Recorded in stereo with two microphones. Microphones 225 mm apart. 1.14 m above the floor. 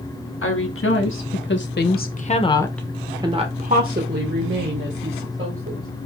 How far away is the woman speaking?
About 1.4 m.